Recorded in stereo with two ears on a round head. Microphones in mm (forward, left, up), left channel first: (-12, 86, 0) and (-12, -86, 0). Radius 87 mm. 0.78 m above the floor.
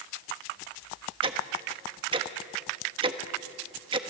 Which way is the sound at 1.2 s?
30° right (ahead or behind).